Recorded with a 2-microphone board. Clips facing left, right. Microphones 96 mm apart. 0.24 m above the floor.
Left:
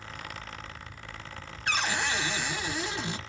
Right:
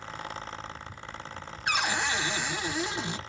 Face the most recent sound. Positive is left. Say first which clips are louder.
# right 1 dB
turn(degrees=-15)  # may be behind; listen again after turning